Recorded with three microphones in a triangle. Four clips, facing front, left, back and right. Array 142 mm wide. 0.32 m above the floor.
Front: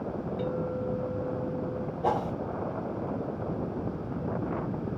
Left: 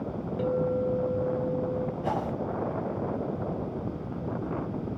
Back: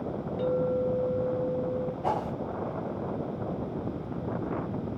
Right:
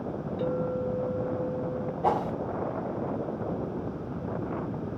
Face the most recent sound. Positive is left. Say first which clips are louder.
# right 7 dB, front 4 dB
turn(degrees=-80)